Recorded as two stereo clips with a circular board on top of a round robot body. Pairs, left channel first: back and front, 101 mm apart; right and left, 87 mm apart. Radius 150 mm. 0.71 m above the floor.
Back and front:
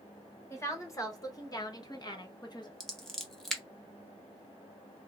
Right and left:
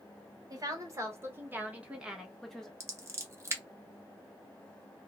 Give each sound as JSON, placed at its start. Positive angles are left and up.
{"t": 0.5, "sound": "a woman speaking", "azimuth_deg": 125, "distance_m": 1.5}
{"t": 2.8, "sound": "scissors", "azimuth_deg": 95, "distance_m": 1.1}